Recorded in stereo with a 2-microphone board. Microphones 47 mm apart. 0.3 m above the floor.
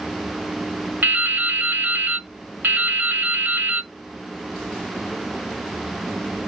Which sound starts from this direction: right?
Dripping, at 1.0 s.